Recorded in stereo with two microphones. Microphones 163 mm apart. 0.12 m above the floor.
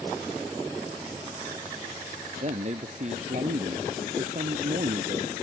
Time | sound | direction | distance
2.4 | a man speaking | 45° right (ahead or behind) | ?